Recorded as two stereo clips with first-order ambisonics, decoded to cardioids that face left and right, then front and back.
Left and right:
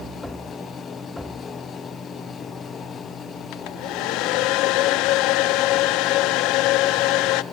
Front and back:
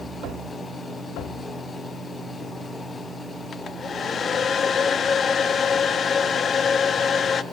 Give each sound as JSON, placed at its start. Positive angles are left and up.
{"t": 3.5, "sound": "a hair dryer", "azimuth_deg": 65, "distance_m": 0.5}